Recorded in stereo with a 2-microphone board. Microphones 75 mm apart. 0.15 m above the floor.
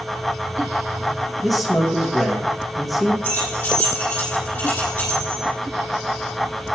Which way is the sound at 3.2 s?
25° left (ahead or behind).